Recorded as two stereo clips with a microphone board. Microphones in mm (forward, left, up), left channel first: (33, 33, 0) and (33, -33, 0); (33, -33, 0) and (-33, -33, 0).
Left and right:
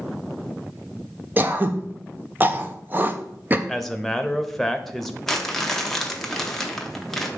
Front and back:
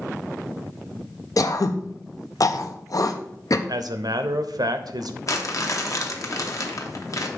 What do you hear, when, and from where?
1.4 s throat clearing: 30° right, 0.6 m
3.7 s a man speaking: 175° left, 0.7 m
5.3 s crumpling: 5° left, 0.9 m